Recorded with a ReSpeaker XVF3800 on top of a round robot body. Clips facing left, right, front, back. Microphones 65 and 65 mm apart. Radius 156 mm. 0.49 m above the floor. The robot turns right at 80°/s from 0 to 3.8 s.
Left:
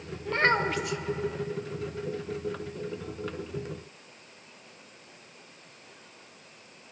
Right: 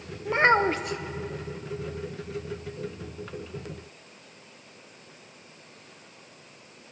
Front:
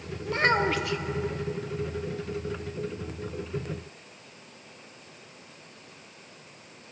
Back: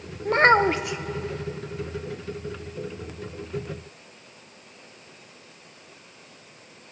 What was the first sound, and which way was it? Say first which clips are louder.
A child speaking: right 4 dB, back 7 dB; 165° right.